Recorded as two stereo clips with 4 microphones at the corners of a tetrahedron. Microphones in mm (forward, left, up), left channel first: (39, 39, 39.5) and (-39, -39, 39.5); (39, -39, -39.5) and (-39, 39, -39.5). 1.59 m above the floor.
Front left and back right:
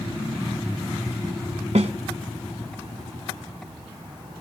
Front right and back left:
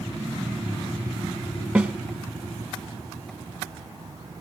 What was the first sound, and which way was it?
A snare drum, 150° right.